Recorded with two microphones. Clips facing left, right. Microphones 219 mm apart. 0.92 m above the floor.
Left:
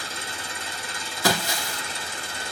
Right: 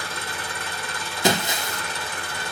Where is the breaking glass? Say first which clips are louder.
Right 3 dB; 20° right (ahead or behind), 0.6 m.